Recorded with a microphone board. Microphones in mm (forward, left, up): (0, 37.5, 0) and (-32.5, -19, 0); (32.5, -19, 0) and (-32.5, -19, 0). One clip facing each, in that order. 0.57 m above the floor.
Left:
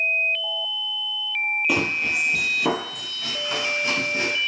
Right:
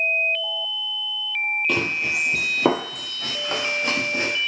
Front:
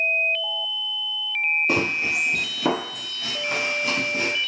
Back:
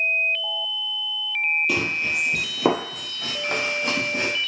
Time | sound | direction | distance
1.7 | running footsteps | 20° right | 0.6 m